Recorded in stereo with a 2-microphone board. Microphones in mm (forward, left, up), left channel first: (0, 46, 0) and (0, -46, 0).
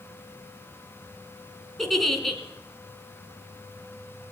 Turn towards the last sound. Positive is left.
turn(degrees=0)  # may be behind; listen again after turning